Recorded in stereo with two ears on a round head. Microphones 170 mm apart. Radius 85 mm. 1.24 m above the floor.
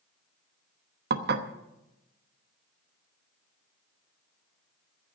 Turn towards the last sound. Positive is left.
turn(degrees=-60)  # may be behind; listen again after turning